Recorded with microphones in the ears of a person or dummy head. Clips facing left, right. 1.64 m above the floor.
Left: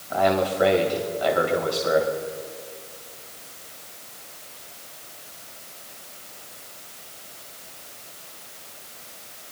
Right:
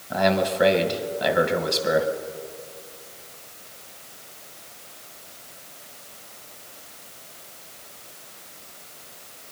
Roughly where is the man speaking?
Right.